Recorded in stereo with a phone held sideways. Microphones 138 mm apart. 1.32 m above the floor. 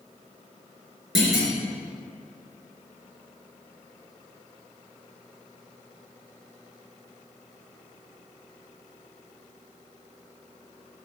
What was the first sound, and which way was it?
A clunk, centre (ahead or behind).